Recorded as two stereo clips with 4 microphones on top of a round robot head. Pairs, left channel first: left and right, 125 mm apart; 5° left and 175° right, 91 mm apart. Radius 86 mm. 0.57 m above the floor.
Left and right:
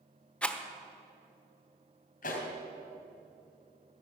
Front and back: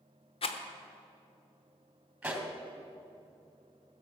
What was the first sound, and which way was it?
A rattle, 10° left.